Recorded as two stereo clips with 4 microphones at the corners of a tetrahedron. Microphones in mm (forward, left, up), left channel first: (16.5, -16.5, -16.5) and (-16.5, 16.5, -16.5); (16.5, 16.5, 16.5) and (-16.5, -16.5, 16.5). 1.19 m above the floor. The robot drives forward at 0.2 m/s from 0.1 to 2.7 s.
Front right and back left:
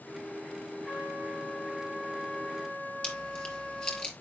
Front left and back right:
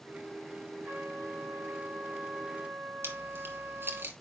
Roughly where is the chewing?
Behind right.